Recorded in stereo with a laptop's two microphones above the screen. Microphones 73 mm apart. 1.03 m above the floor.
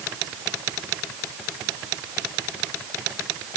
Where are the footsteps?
No footsteps in this recording.